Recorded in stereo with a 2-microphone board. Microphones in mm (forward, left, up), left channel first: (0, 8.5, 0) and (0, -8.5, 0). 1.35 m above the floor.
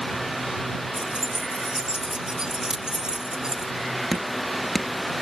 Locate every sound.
0.9 s keys jangling: 75° right (ahead or behind); by 3.7 s 45° right (ahead or behind)
2.7 s a crack: 50° right (ahead or behind)
4.1 s dripping: 5° left (ahead or behind)